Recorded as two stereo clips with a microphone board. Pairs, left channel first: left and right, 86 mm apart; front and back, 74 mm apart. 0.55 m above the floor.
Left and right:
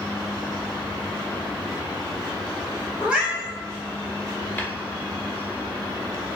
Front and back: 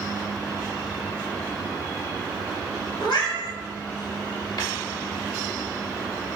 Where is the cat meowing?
15° right, 1.0 m.